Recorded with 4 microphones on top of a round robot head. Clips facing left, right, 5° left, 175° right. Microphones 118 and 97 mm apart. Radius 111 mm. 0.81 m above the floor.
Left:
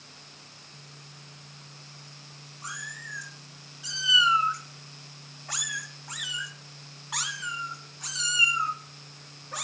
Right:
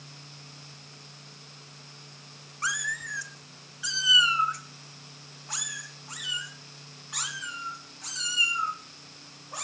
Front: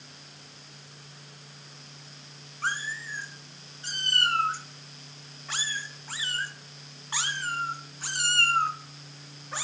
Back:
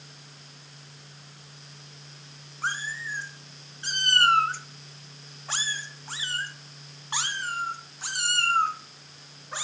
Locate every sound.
2.6 s a cat meowing: 95° right, 1.3 m; by 9.6 s 110° left, 3.5 m